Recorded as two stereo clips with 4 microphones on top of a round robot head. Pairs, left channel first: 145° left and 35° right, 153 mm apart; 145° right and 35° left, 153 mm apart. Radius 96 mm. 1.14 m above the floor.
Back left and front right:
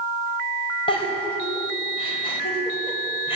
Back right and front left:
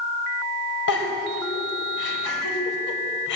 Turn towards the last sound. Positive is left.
turn(degrees=-155)